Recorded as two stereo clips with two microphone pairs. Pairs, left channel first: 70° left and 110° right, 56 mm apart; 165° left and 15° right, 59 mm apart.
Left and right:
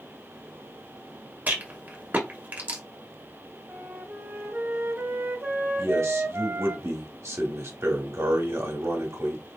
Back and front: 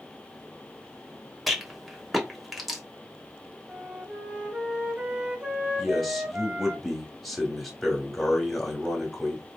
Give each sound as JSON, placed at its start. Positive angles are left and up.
{"t": 1.5, "sound": "a rattle", "azimuth_deg": -105, "distance_m": 1.1}
{"t": 3.7, "sound": "a flute", "azimuth_deg": -80, "distance_m": 1.3}
{"t": 5.8, "sound": "a man speaking", "azimuth_deg": -105, "distance_m": 1.5}